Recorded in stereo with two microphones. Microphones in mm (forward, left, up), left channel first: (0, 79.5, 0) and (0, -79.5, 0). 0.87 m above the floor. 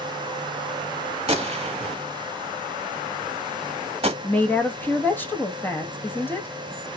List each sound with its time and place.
1.3 s a gunshot: 35° right (ahead or behind), 0.8 m
4.2 s a woman speaking: 10° left (ahead or behind), 0.9 m